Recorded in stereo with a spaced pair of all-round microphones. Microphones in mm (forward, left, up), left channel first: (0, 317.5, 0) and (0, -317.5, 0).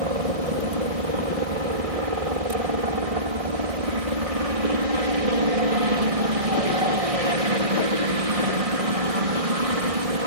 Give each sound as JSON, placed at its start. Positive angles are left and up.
{"t": 0.0, "sound": "a helicopter", "side_deg": -65}